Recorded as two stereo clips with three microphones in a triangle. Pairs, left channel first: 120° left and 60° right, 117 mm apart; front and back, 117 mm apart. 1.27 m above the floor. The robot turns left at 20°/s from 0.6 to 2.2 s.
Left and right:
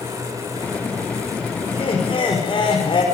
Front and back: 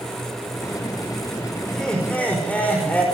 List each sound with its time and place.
1.7 s laughter: 90° left, 5.5 m; by 3.0 s 80° left, 5.5 m